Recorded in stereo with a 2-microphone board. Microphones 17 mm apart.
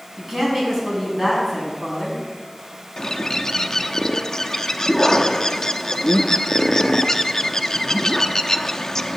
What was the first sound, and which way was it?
A woman speaking, 30° right (ahead or behind).